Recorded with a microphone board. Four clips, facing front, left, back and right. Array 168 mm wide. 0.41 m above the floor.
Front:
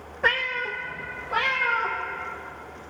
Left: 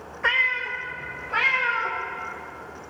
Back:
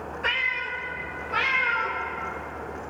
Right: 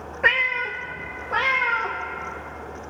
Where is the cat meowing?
55° right, 0.7 m; by 2.0 s 65° right, 1.9 m.